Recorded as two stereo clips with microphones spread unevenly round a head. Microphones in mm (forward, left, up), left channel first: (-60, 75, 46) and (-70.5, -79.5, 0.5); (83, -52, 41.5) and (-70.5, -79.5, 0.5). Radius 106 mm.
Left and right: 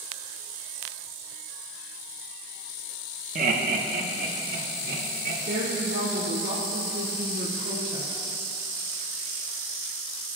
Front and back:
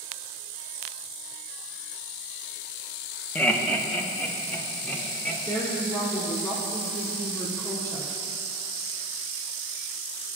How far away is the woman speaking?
About 2.5 m.